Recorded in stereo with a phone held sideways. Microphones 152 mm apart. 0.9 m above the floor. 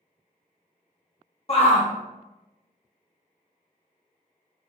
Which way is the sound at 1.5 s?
45° left (ahead or behind).